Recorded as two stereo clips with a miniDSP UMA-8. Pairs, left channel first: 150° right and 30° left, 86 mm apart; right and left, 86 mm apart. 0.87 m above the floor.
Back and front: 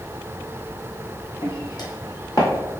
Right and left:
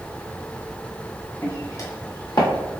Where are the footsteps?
140° right, 1.7 m; by 2.5 s 105° right, 1.7 m.